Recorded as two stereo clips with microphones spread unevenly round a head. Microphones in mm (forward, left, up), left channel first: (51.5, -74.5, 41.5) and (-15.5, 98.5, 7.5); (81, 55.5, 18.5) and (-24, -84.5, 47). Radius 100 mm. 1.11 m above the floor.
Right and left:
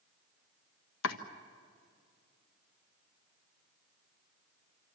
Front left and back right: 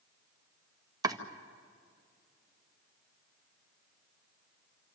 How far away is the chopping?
About 1.6 m.